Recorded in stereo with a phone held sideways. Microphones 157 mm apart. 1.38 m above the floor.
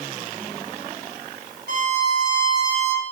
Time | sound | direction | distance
1.7 | a violin | 85° right | 4.5 m